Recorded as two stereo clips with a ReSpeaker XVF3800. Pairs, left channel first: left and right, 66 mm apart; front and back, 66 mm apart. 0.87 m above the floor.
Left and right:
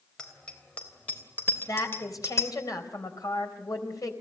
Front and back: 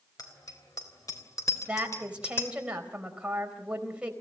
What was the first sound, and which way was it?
A bicycle bell, 15° left.